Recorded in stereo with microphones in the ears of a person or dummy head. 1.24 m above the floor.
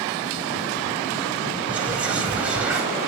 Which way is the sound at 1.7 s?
5° right (ahead or behind).